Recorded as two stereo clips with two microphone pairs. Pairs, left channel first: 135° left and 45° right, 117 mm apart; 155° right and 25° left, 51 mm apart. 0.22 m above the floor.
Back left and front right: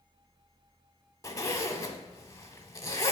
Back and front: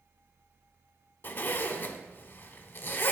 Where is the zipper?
175° right, 0.6 m.